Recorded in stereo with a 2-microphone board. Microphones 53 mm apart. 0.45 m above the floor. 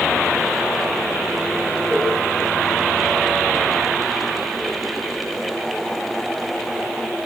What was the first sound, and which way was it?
A cowbell, 15° right (ahead or behind).